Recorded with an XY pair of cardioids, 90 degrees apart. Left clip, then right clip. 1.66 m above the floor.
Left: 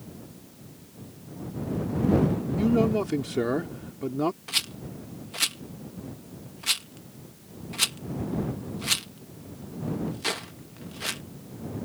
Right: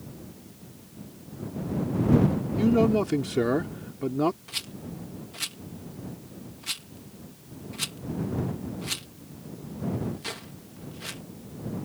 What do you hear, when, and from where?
2.6 s a man speaking: 10° right
4.5 s a rattle: 55° left